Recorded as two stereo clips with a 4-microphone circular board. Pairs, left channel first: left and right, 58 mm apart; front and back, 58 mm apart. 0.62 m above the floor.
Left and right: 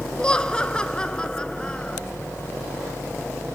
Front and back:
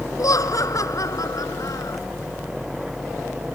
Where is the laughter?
15° left.